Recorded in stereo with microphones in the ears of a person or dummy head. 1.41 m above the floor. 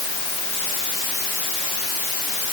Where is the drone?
I don't hear a drone.